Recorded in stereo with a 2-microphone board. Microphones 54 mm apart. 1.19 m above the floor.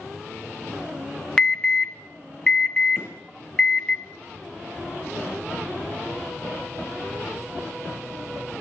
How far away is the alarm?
About 0.7 m.